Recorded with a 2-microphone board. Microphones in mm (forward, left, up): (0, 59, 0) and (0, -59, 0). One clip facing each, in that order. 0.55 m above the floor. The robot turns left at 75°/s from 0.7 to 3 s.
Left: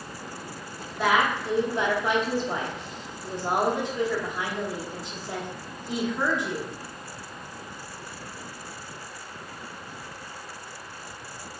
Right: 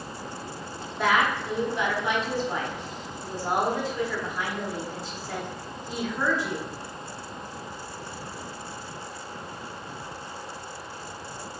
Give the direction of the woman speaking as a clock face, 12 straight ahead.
6 o'clock.